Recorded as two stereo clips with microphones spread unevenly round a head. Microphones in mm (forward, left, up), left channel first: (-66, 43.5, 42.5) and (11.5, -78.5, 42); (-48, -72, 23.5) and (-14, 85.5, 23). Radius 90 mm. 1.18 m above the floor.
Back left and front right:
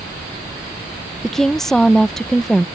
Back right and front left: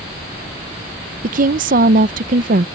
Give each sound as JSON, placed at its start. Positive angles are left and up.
{"t": 1.2, "sound": "a woman speaking", "azimuth_deg": 35}